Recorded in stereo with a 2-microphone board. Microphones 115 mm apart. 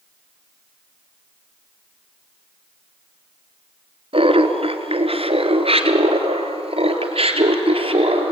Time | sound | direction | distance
4.1 | laughter | 55° right (ahead or behind) | 2 m